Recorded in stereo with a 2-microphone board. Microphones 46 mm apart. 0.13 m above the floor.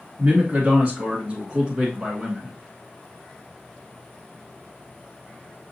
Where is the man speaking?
30° right (ahead or behind), 1.5 m; by 2.5 s 10° right (ahead or behind), 1.6 m.